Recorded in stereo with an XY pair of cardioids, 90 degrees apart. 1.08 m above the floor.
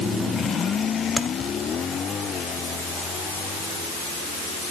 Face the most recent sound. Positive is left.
turn(degrees=5)